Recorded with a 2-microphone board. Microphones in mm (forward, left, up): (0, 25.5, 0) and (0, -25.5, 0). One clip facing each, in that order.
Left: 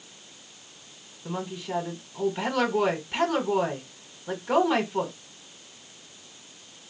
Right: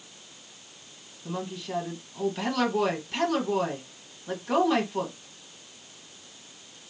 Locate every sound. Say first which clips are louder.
1.2 s a woman speaking: left 1 dB; 15° left (ahead or behind), 1.1 m